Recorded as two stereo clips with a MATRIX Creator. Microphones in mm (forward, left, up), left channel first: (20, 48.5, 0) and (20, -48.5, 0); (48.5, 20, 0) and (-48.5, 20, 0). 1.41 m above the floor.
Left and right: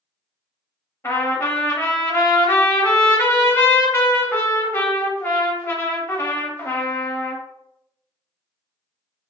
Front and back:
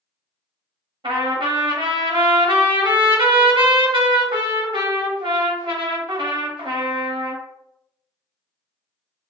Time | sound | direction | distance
1.0 | a trumpet | 150° left | 0.6 m